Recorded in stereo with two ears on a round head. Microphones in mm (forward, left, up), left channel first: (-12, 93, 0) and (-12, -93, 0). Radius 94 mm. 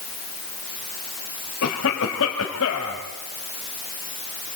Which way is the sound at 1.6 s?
70° left (ahead or behind).